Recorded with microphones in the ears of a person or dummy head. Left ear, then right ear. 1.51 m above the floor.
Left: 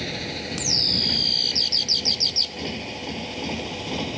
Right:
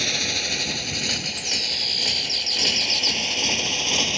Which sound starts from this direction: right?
A motorcycle, at 0.0 s.